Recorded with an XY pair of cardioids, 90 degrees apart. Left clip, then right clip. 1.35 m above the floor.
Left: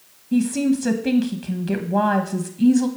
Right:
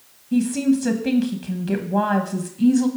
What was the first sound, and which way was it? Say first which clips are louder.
A woman speaking: even; 10° left.